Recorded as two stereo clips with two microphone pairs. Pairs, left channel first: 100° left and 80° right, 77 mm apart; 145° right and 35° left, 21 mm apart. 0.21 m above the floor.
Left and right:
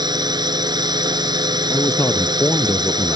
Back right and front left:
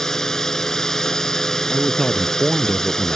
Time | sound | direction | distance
0.0 | a drone | 85° right | ?
1.7 | a man speaking | 155° left | ?